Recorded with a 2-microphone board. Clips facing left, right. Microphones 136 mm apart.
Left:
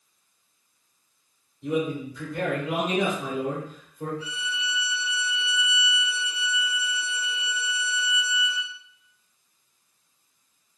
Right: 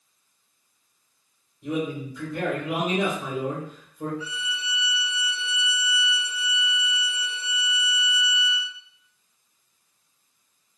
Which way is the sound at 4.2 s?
50° left (ahead or behind).